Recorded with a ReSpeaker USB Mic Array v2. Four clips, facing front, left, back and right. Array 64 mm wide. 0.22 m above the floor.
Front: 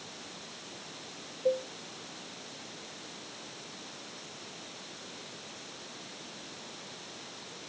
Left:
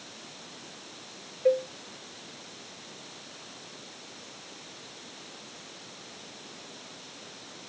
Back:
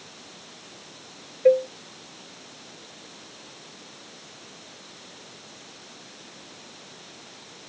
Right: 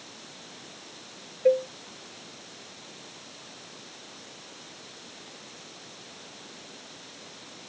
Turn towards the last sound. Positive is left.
turn(degrees=-170)